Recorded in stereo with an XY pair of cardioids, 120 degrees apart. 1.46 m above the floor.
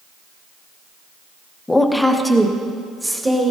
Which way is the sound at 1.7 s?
10° left.